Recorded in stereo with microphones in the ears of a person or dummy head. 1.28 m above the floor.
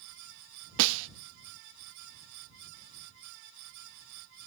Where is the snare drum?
75° right (ahead or behind).